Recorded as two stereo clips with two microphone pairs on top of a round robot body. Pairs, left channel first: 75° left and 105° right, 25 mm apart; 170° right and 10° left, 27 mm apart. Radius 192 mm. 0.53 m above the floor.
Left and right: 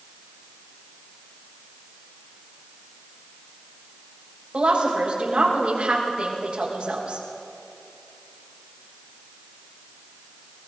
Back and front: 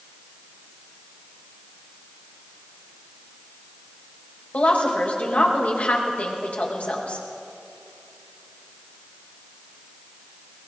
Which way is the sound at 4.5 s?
150° right.